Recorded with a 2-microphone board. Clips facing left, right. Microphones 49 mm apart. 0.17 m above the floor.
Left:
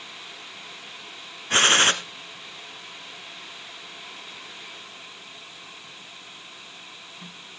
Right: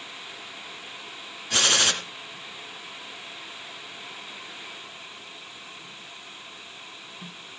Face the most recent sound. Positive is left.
turn(degrees=40)  # may be behind; listen again after turning